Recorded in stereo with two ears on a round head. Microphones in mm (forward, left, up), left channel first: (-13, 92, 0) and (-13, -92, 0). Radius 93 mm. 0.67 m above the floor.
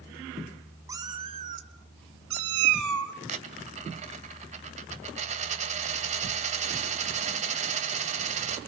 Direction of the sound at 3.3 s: 35° right (ahead or behind).